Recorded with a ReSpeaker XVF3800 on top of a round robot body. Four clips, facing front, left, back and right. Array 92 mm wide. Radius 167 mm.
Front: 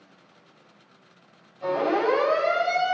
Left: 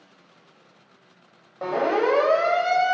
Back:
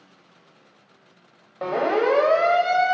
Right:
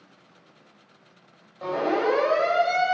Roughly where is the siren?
Behind left.